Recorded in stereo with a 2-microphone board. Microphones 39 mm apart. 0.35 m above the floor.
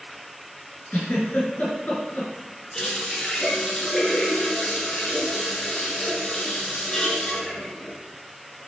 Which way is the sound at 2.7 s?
20° left (ahead or behind).